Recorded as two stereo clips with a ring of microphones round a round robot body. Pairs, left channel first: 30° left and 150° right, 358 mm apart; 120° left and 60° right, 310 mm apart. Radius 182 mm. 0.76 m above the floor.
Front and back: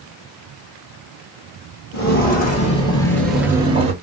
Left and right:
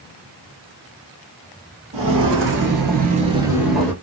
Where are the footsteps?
25° right, 1.1 m; by 3.9 s 165° right, 0.7 m.